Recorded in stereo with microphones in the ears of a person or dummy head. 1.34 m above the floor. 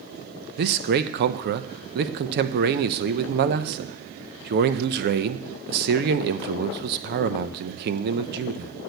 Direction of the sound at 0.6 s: 55° right (ahead or behind).